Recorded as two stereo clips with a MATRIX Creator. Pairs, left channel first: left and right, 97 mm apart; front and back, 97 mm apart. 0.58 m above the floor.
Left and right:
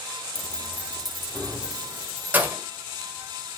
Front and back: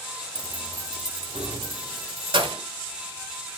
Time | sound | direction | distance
0.3 | keys jangling | 100° left | 0.6 m